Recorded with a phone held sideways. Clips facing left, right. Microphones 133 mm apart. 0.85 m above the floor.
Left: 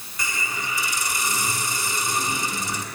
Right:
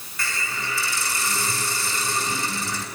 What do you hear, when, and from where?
0.2 s a hiss: 20° left (ahead or behind), 8.5 m